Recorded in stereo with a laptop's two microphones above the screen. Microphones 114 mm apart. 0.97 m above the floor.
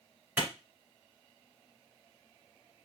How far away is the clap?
About 3 m.